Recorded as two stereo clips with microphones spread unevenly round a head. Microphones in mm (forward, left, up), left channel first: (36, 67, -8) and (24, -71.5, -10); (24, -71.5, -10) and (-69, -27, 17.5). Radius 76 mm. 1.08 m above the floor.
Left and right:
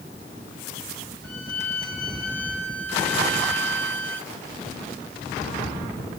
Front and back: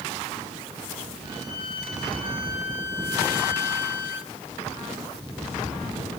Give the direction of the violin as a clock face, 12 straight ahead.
12 o'clock.